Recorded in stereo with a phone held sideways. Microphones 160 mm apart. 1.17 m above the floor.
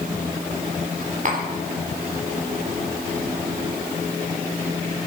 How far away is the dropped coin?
I don't hear a dropped coin.